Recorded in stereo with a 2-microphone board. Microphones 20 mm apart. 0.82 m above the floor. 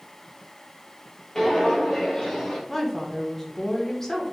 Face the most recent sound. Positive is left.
turn(degrees=15)  # may be behind; listen again after turning